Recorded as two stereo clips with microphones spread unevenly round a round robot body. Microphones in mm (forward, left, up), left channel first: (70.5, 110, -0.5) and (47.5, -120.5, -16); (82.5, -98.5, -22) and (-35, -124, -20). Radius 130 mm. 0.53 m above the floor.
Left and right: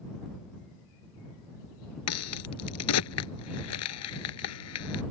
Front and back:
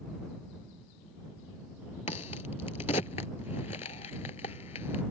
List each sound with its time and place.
2.1 s a crack: 75° left